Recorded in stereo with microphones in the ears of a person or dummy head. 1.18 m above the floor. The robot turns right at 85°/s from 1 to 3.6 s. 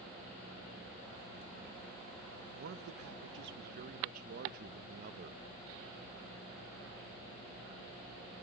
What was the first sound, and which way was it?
A man speaking, 140° right.